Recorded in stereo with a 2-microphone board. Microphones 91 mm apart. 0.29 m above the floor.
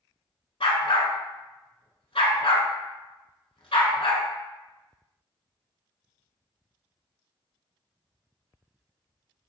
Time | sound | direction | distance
0.6 | a dog barking | 90° left | 0.7 m